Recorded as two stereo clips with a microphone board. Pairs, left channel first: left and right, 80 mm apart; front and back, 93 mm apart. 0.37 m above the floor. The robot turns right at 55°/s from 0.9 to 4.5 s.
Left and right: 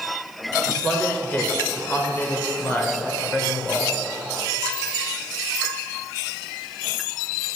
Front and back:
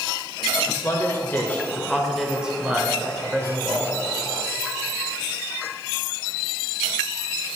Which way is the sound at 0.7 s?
20° left.